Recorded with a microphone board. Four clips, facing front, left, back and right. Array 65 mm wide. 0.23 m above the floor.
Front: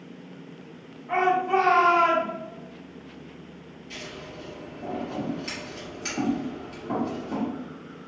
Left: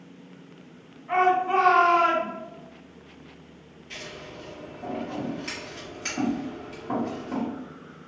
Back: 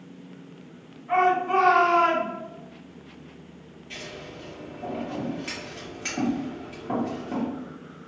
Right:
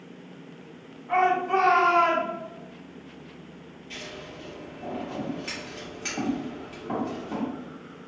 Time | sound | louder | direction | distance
1.1 | a shout | left 1 dB, back 1 dB | 105° left | 1.6 m
3.9 | scissors | even, even | 155° right | 1.6 m